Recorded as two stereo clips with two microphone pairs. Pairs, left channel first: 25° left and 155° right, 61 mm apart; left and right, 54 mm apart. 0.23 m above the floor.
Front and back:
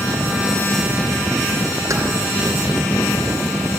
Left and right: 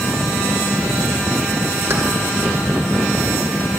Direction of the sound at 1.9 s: 130° right.